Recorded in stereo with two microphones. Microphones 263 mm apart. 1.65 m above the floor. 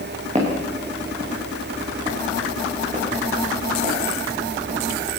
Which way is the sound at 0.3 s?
25° right (ahead or behind).